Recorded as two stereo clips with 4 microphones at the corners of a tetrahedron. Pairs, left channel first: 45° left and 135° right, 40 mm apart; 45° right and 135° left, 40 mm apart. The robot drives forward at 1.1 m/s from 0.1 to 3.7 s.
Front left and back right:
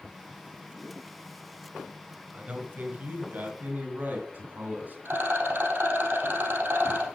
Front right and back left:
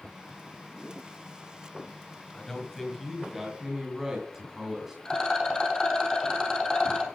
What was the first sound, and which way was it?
A man speaking, 115° right.